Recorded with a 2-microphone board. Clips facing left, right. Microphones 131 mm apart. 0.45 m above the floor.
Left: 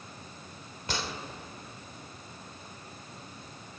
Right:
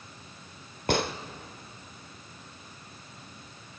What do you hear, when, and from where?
0.9 s a gunshot: 60° right (ahead or behind), 0.6 m